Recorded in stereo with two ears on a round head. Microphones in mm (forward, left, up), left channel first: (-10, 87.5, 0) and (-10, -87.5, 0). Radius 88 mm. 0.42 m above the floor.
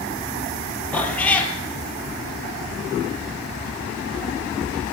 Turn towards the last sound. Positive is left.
turn(degrees=10)  # may be behind; listen again after turning